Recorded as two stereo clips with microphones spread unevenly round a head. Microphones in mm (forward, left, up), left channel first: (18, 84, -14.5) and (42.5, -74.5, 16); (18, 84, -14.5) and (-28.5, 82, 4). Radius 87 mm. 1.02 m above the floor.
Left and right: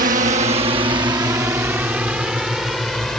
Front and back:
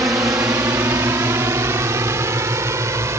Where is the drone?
125° right; by 3.2 s 175° right.